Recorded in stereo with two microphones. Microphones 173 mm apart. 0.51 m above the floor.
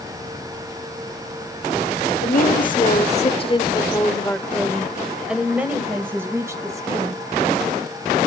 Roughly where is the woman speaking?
Left.